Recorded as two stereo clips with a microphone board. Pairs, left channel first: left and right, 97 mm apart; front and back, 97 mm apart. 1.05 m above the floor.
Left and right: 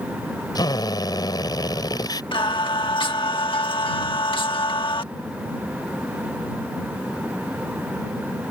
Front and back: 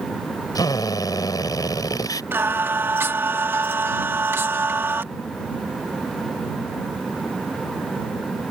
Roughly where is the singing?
Behind left.